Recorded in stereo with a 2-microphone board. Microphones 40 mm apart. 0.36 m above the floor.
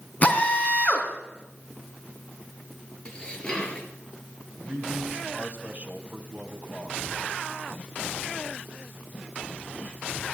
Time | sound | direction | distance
0.2 | a drill | 35° left (ahead or behind) | 3 m
3.0 | dishes clattering | 20° left (ahead or behind) | 4.5 m
4.6 | a man speaking | 30° right (ahead or behind) | 3 m